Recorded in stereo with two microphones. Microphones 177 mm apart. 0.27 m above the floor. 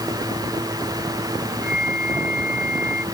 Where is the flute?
5° right (ahead or behind).